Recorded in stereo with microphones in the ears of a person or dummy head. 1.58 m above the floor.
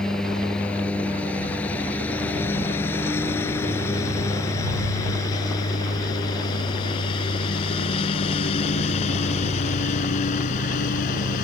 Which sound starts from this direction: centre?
A lawn mower, at 0.0 s.